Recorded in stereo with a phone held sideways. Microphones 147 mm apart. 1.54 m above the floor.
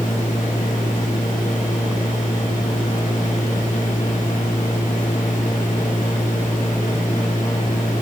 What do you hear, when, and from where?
0.0 s a machine running: 60° left (ahead or behind), 1.2 m